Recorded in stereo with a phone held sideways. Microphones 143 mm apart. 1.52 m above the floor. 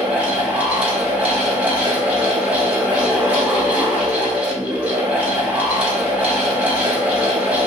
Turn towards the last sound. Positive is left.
turn(degrees=-10)  # may be behind; listen again after turning